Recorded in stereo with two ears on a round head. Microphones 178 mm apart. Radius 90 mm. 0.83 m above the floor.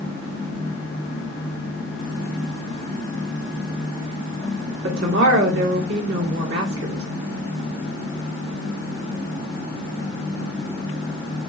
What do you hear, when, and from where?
4.8 s a woman speaking: 65° right (ahead or behind), 1.5 m